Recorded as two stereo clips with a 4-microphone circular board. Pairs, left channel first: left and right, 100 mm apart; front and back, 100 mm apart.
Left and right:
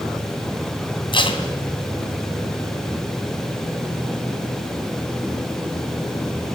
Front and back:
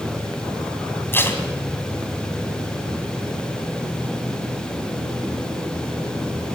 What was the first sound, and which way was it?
Tape being pulled, 65° left.